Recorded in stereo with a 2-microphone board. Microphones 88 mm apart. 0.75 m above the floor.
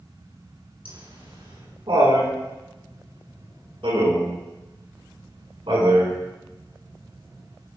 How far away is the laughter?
About 8.5 m.